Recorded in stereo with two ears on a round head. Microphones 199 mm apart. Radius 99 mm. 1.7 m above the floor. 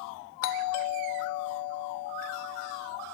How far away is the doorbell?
About 0.6 m.